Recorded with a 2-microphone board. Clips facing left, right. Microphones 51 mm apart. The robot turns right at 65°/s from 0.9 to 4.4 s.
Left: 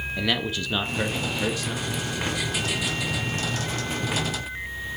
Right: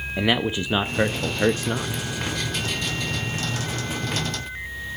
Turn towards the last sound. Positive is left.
turn(degrees=85)